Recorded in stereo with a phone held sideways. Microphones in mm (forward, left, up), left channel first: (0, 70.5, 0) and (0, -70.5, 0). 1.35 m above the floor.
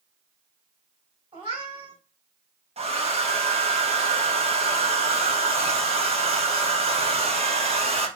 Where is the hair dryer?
45° right (ahead or behind), 1.3 m.